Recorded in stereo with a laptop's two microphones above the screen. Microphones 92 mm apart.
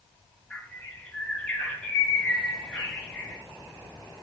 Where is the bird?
20° left (ahead or behind), 1.0 m.